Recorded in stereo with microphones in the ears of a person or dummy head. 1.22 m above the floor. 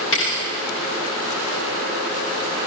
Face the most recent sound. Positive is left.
turn(degrees=70)  # may be behind; listen again after turning